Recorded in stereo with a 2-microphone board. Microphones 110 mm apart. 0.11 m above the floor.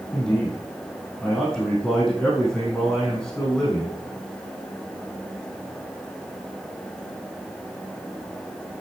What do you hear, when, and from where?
0.1 s a man speaking: 5° left (ahead or behind), 5 m